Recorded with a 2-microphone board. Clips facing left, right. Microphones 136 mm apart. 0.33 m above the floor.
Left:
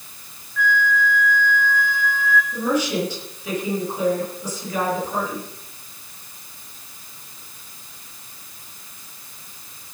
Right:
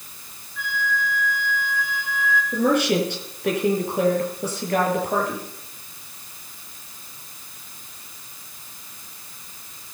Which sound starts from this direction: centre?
A flute, at 0.6 s.